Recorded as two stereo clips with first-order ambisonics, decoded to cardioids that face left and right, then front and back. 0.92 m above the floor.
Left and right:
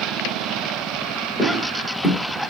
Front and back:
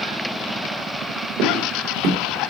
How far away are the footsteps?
About 2.5 m.